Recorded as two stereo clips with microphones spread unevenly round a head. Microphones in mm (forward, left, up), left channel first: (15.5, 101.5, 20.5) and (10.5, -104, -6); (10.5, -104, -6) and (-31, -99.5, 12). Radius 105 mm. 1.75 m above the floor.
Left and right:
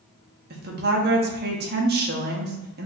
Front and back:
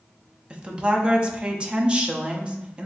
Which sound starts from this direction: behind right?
A woman speaking, at 0.5 s.